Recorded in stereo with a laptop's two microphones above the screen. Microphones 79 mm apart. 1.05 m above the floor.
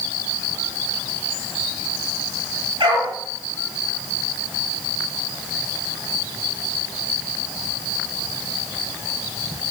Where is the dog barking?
85° right, 8 m.